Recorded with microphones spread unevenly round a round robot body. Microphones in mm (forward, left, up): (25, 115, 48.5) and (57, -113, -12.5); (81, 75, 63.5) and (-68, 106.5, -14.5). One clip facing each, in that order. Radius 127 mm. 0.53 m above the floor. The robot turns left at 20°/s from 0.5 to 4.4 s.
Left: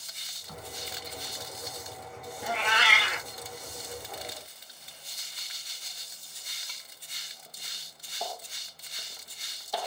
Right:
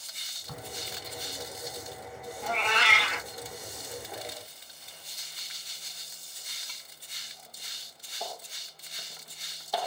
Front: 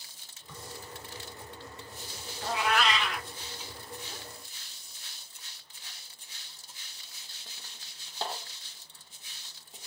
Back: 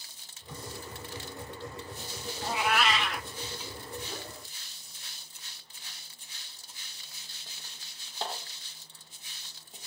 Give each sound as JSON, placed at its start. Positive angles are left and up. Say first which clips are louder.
{"t": 0.5, "sound": "a crack", "louder": "right 1 dB, back 4 dB", "azimuth_deg": -110, "distance_m": 0.5}
{"t": 2.4, "sound": "a cat meowing", "louder": "even, even", "azimuth_deg": 50, "distance_m": 0.5}